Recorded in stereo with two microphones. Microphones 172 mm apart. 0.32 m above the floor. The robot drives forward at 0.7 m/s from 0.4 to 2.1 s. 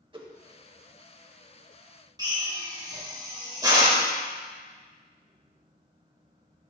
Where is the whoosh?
30° right (ahead or behind), 0.8 m.